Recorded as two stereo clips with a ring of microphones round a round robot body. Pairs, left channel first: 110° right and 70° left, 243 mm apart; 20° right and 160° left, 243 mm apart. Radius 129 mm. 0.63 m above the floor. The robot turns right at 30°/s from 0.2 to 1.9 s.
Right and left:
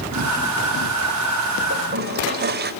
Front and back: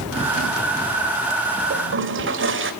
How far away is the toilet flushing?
About 2.5 m.